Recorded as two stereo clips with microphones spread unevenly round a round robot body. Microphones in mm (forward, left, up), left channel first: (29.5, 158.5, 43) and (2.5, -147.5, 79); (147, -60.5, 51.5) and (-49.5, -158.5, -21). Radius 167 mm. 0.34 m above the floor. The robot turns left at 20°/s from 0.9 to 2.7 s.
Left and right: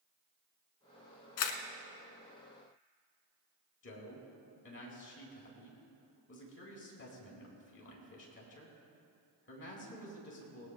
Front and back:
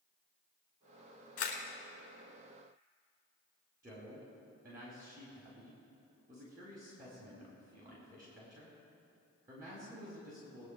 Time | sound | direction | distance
1.4 | a camera shutter | 65° left | 1.2 m
3.8 | a man speaking | 135° left | 3.5 m